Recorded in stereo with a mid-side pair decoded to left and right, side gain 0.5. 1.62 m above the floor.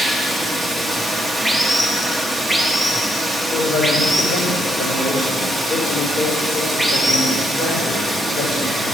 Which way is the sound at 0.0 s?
Straight ahead.